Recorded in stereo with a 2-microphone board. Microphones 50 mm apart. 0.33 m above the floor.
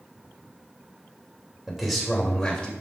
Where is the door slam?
I don't hear a door slam.